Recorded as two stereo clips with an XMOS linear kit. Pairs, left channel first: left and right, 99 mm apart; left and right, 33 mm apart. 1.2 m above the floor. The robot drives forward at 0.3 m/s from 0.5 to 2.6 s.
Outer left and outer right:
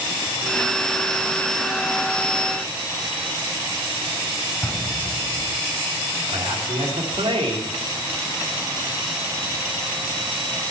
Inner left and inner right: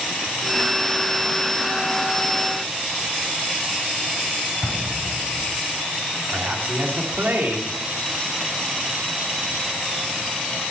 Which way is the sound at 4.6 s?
15° left (ahead or behind).